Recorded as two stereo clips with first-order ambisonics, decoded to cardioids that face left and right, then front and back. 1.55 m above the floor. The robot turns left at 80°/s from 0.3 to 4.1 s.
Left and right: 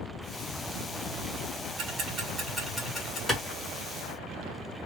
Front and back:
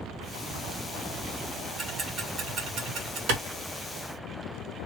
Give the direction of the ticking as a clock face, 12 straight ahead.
3 o'clock.